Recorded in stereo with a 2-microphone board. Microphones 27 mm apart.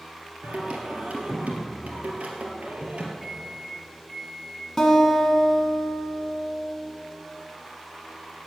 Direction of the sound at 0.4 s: 60° right (ahead or behind).